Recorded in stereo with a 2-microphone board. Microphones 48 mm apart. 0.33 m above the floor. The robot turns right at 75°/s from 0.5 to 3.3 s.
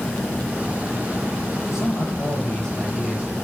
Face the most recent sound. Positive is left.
turn(degrees=-155)